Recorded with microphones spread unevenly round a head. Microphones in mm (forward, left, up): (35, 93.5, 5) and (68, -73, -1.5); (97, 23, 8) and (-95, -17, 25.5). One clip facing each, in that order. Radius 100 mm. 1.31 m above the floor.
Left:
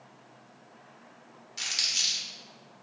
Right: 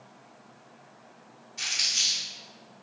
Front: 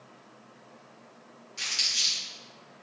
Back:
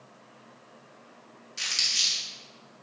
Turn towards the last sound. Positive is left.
turn(degrees=120)